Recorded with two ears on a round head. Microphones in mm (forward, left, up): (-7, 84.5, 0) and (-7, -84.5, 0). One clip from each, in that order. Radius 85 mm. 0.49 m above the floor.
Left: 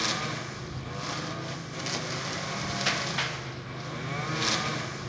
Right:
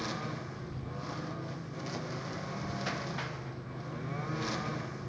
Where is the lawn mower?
70° left (ahead or behind).